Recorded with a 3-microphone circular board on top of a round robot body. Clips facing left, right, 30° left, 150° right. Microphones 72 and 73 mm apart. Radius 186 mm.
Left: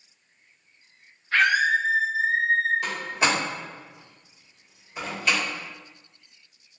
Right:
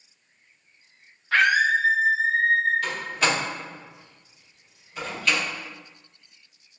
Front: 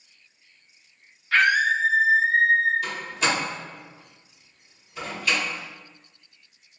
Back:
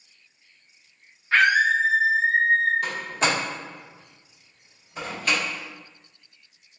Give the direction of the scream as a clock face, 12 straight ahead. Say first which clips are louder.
Right 1 dB, back 1 dB; 3 o'clock.